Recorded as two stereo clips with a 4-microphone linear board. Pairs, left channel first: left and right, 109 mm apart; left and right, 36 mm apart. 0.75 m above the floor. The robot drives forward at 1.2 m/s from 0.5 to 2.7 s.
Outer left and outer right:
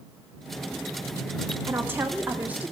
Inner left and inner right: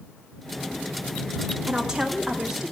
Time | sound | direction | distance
1.7 | a woman speaking | 20° right (ahead or behind) | 1.4 m